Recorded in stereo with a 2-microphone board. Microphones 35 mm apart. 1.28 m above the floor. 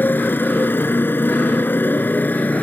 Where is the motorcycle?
70° left (ahead or behind); by 2.6 s 55° left (ahead or behind).